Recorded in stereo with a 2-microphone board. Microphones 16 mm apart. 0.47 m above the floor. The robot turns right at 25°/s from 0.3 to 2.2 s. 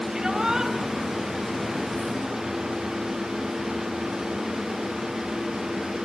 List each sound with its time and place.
0.1 s a shout: 35° right (ahead or behind), 3 m; by 0.7 s 45° right (ahead or behind), 3 m